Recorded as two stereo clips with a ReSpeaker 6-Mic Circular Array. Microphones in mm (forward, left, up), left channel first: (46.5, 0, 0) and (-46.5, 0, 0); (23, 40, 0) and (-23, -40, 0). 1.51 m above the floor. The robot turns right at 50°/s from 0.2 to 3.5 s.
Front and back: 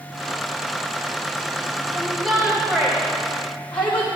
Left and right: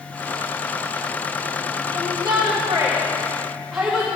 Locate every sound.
1.9 s a shout: 115° right, 1.5 m; by 4.1 s 35° right, 1.5 m